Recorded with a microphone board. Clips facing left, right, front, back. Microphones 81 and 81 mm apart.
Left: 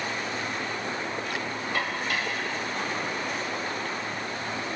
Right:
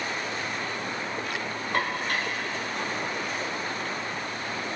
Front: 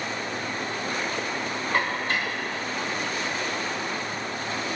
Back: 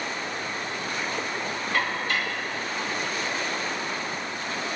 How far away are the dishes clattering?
About 4 m.